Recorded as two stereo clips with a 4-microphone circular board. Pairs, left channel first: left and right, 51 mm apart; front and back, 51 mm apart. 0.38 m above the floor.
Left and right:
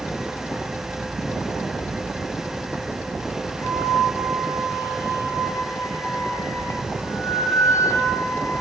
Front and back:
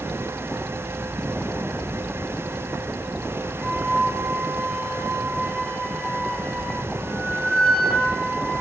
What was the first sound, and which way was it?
A flute, 85° left.